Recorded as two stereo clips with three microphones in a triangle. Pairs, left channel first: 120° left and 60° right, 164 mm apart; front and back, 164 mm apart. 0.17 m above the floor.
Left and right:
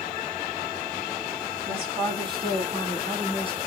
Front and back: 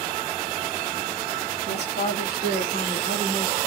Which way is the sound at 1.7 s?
5° left.